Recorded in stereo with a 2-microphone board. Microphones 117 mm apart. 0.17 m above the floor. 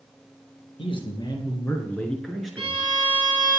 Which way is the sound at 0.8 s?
50° left (ahead or behind).